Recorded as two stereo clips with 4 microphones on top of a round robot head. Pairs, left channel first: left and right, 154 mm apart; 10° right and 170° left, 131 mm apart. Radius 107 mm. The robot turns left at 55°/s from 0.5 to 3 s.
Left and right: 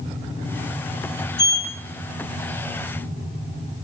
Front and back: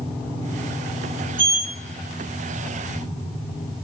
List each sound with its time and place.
1.4 s a sliding door: 95° left, 2 m; by 1.7 s 75° left, 2 m